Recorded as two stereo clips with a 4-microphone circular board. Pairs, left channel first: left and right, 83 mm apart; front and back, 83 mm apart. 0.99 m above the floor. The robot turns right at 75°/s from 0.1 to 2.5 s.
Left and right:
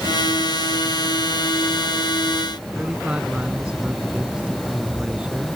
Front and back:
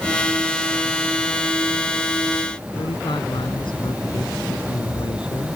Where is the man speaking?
15° right.